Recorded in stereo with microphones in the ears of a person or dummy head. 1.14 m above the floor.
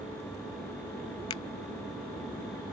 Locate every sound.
1.3 s a finger snap: 25° left (ahead or behind)